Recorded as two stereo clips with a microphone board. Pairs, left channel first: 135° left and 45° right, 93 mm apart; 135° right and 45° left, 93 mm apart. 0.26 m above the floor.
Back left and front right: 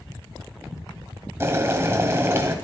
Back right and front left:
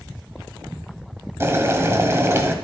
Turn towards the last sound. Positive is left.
turn(degrees=0)